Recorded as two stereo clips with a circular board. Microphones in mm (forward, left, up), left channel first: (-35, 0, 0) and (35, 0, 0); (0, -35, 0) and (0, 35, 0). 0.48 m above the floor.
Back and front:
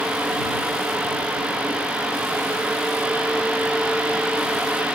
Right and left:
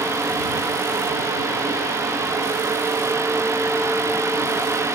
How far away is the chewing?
I don't hear chewing.